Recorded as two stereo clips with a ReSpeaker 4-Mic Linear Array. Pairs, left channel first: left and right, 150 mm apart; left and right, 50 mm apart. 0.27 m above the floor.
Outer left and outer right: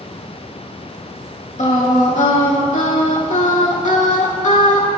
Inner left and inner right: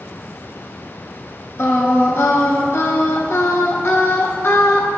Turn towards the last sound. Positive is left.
turn(degrees=55)  # may be behind; listen again after turning